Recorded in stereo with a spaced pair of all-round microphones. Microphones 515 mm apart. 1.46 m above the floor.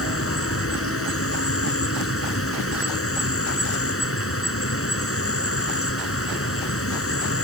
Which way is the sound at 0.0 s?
25° left (ahead or behind).